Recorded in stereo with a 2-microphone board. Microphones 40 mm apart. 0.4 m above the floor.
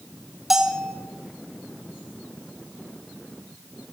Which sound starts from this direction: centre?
A bell, at 0.5 s.